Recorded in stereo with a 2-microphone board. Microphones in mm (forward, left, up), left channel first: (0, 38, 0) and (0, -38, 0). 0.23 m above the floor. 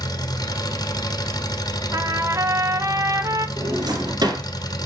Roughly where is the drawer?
Right.